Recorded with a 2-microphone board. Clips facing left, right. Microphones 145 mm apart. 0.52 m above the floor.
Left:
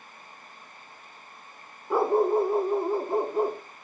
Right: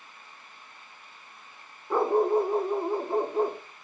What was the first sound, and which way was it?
A dog barking, 5° left (ahead or behind).